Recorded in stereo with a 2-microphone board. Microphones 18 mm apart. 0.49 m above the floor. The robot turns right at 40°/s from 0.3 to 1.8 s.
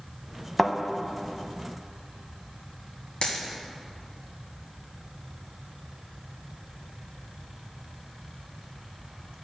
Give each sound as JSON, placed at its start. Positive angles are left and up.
{"t": 0.6, "sound": "a thud", "side_deg": 5, "distance_m": 0.7}
{"t": 3.2, "sound": "a dropped coin", "side_deg": 85, "distance_m": 1.7}